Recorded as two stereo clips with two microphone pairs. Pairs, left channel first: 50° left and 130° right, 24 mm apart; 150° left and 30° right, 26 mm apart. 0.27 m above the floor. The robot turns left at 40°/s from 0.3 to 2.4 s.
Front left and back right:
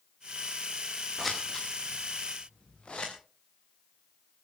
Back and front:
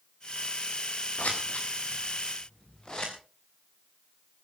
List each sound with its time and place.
1.2 s scissors: 140° left, 4.5 m; by 3.1 s 90° left, 4.5 m